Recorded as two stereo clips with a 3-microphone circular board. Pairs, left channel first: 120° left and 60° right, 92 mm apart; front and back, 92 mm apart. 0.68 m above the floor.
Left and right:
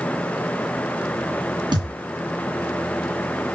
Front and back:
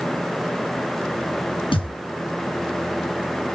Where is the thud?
20° right, 2.5 m.